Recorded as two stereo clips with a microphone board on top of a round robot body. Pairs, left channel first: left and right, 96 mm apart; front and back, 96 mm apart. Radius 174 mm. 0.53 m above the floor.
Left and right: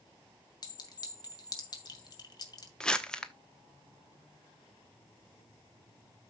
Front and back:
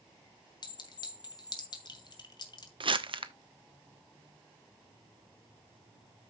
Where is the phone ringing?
I don't hear a phone ringing.